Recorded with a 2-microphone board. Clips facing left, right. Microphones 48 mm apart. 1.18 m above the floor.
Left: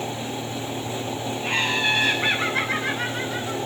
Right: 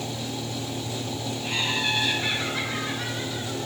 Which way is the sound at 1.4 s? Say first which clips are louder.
Left 4 dB; 35° left (ahead or behind).